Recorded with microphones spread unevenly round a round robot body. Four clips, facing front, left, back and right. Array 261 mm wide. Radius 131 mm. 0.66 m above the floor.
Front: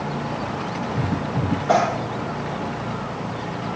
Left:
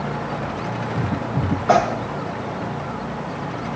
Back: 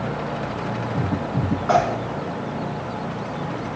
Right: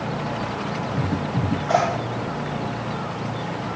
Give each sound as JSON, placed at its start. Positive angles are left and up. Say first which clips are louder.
{"t": 1.7, "sound": "tearing paper", "louder": "left 5 dB, even", "azimuth_deg": 115, "distance_m": 6.0}